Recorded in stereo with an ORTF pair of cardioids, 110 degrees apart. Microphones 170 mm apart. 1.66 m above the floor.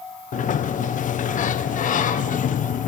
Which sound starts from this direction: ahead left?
A sliding door, at 0.3 s.